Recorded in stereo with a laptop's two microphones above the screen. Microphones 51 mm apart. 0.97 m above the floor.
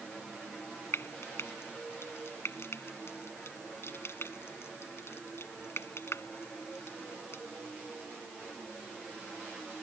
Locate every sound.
0.9 s frying: 70° left (ahead or behind)